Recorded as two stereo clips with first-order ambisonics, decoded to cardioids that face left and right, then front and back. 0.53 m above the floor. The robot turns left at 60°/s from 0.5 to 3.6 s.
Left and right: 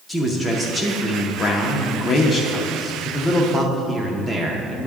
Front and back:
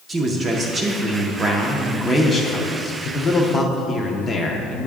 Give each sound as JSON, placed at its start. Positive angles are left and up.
{"t": 0.1, "sound": "a man speaking", "azimuth_deg": -160, "distance_m": 0.6}